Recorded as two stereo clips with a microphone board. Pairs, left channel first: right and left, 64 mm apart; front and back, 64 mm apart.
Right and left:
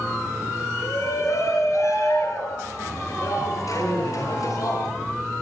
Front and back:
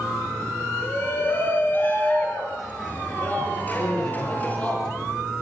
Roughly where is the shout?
Ahead right.